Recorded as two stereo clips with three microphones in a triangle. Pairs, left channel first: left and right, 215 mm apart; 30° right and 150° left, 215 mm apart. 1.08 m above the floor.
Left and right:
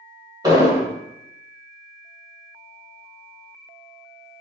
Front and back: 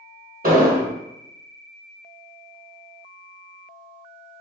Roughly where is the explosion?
Behind.